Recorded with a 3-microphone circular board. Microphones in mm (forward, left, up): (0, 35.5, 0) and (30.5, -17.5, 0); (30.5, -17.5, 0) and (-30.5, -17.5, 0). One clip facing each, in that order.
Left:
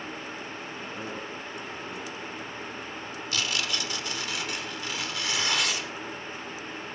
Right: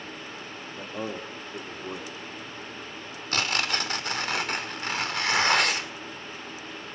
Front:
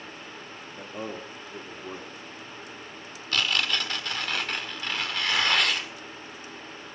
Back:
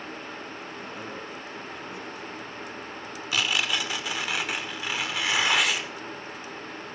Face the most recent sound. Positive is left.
turn(degrees=-100)